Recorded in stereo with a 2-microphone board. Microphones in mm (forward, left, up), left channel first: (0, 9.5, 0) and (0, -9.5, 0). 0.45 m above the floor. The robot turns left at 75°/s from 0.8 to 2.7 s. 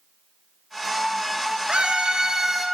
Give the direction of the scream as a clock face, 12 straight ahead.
3 o'clock.